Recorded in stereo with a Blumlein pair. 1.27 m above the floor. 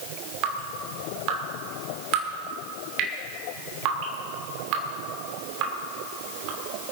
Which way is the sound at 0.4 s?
40° right.